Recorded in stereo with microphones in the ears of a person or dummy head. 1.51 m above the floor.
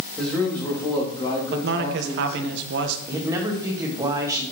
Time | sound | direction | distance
0.2 | a man speaking | 5° left (ahead or behind) | 2.5 m
1.5 | a man speaking | 65° right (ahead or behind) | 1.1 m
3.1 | a man speaking | 15° right (ahead or behind) | 1.5 m